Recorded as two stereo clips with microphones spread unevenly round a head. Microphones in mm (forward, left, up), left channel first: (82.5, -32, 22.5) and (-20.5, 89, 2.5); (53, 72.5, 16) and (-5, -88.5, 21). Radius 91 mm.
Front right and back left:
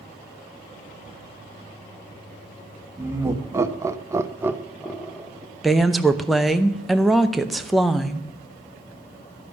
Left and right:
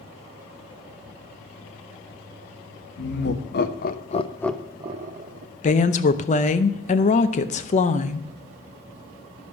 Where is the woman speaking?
45° left, 0.7 m.